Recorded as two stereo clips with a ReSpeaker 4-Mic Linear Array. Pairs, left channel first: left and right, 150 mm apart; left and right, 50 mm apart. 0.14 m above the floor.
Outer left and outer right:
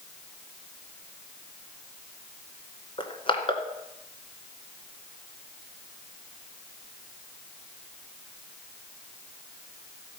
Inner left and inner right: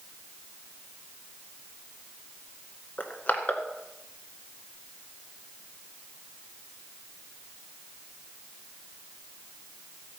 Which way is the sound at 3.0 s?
40° left (ahead or behind).